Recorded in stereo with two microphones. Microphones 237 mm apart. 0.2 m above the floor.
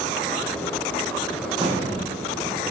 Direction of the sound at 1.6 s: 20° right (ahead or behind).